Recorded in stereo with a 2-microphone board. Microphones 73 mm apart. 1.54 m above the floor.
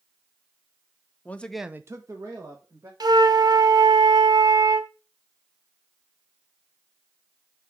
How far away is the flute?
About 0.7 m.